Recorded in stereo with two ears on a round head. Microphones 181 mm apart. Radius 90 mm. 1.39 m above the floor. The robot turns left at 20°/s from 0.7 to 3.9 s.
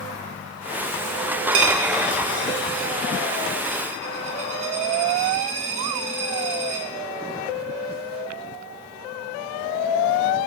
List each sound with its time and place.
1.5 s a dropped coin: 70° right (ahead or behind), 1.7 m; by 6.8 s 35° right (ahead or behind), 1.7 m